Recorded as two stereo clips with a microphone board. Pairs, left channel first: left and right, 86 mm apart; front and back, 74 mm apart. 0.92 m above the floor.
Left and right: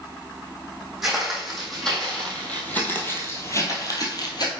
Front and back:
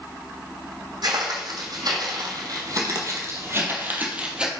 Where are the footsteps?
175° right, 2.5 m; by 4.5 s 105° left, 1.5 m.